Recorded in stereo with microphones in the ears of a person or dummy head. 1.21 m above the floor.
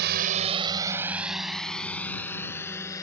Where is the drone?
60° right (ahead or behind); by 3.0 s 15° left (ahead or behind).